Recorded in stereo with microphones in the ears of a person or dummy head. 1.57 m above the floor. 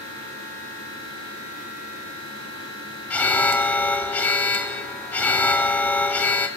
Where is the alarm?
10° left (ahead or behind), 1.2 m.